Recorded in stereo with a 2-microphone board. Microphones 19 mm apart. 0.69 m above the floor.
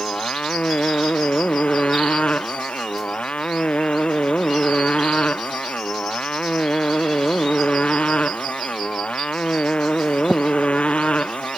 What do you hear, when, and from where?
0.0 s a motorcycle: 70° left (ahead or behind)